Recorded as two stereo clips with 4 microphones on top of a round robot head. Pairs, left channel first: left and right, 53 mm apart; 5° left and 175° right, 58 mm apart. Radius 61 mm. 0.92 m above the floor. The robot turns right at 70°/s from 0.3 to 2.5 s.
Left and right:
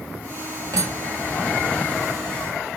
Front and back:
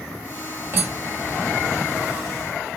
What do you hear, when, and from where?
0.7 s cutlery clinking: 125° right, 1.1 m; by 1.3 s 85° right, 1.1 m